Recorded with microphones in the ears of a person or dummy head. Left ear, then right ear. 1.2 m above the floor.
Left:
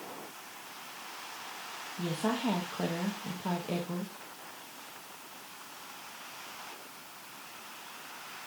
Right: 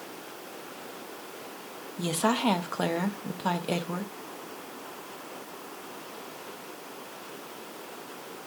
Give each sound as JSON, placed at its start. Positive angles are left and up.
{"t": 2.0, "sound": "a woman speaking", "side_deg": -45, "distance_m": 0.9}